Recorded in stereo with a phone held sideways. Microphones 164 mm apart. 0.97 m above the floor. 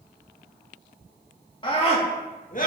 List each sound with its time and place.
1.6 s a scream: 30° left (ahead or behind), 2 m; by 2.7 s 55° left (ahead or behind), 1.6 m